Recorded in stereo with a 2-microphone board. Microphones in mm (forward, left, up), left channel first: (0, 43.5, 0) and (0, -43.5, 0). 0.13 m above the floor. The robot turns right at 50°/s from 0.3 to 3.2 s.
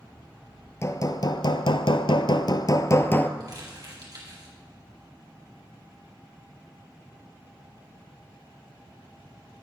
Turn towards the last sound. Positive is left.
turn(degrees=-50)  # may be behind; listen again after turning